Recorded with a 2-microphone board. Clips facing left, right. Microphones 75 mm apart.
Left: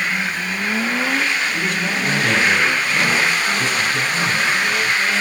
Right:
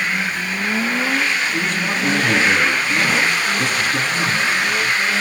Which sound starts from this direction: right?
A man speaking, at 1.5 s.